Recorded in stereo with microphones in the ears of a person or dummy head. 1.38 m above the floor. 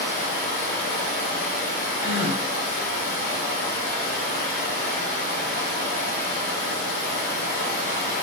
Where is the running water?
40° left (ahead or behind), 2 m.